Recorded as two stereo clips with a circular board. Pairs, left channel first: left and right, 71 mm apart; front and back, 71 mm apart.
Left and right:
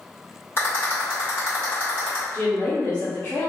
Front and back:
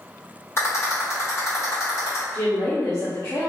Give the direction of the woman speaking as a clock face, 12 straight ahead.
11 o'clock.